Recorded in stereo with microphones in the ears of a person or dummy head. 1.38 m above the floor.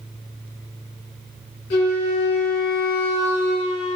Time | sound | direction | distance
1.7 | a flute | 60° left (ahead or behind) | 1.9 m